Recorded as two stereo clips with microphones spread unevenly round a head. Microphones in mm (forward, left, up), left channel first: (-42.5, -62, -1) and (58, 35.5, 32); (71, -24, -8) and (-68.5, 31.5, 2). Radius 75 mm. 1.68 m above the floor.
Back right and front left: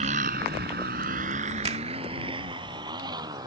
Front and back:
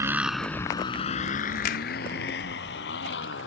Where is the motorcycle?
85° left; by 3.5 s 15° right.